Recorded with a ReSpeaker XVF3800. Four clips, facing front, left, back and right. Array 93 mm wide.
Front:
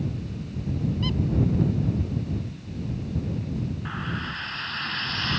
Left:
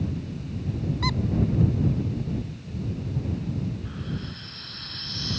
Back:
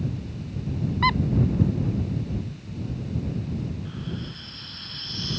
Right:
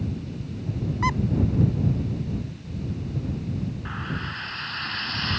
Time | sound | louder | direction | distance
1.0 | a squeak | right 5 dB, back 7 dB | 155° right | ?
3.9 | frying | right 3 dB, front 4 dB | 45° right | ?